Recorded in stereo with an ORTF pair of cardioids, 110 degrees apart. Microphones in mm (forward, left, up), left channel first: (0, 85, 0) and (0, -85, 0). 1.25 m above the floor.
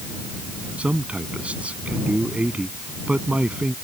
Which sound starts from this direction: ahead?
A man speaking, at 0.8 s.